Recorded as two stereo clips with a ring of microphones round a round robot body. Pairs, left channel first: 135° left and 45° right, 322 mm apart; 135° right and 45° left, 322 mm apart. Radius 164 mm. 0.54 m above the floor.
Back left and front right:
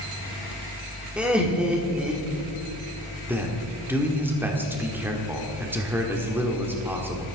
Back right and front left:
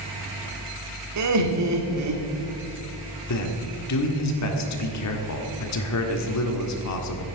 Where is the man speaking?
125° right, 1.7 m.